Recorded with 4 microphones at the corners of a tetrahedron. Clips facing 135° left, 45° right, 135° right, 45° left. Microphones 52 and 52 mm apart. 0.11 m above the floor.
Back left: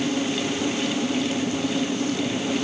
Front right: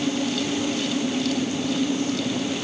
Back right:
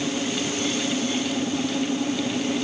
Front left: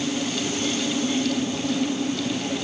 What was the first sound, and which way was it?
Only background noise.